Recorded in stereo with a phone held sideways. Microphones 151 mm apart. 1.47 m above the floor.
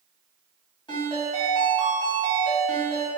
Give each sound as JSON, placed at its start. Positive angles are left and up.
{"t": 0.9, "sound": "a ringtone", "side_deg": 35, "distance_m": 1.8}